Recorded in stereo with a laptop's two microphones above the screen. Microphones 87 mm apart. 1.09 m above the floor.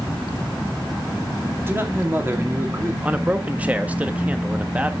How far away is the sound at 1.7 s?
About 2 m.